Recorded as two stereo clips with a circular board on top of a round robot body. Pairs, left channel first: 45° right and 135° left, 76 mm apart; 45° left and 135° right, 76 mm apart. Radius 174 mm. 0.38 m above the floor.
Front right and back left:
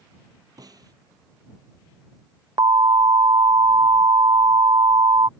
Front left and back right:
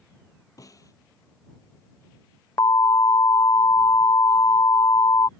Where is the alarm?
95° left.